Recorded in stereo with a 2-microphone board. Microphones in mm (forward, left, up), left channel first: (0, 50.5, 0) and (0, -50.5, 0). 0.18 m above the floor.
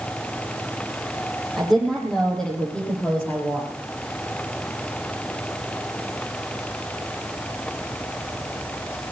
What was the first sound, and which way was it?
A woman speaking, centre (ahead or behind).